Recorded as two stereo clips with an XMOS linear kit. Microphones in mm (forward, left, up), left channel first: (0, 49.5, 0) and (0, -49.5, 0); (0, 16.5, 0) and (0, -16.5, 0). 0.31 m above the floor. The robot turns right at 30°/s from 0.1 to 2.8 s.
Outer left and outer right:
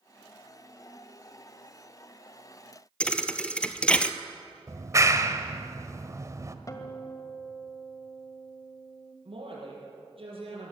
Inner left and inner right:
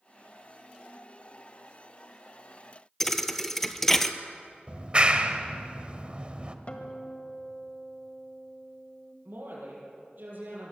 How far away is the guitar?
About 1.9 m.